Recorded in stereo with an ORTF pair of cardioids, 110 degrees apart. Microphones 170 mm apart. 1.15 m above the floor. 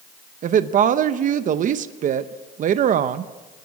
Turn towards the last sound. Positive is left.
turn(degrees=-50)